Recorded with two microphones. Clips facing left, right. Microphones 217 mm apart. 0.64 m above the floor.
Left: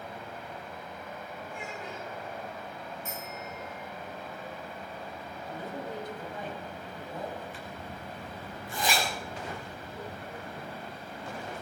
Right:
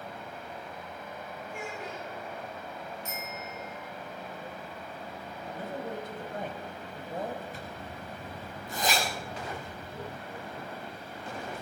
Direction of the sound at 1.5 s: 80° right.